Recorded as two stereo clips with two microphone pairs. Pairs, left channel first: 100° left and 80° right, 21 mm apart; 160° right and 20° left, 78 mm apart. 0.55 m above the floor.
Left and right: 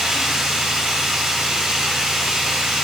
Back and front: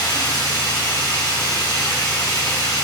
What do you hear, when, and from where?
0.0 s running water: 125° right, 3 m